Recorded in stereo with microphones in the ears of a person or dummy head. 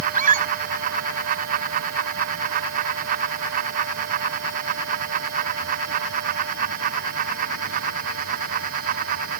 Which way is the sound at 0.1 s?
40° right (ahead or behind).